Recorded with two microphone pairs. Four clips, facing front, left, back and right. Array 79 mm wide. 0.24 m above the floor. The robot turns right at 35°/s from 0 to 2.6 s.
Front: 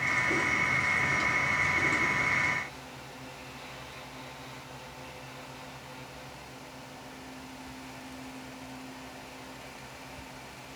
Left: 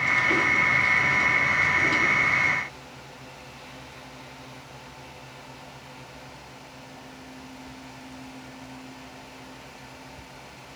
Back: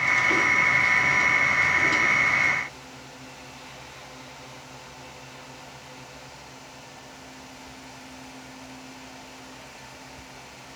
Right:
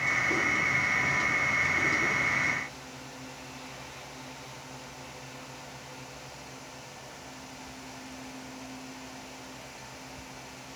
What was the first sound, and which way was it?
Only background noise.